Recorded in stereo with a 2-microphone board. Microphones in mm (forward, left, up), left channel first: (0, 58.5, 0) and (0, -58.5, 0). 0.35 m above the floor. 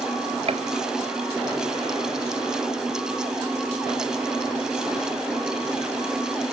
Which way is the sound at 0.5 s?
55° right (ahead or behind).